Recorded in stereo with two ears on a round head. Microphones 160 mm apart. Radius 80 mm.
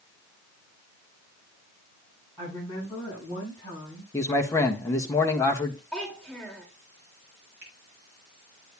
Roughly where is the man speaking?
Centre.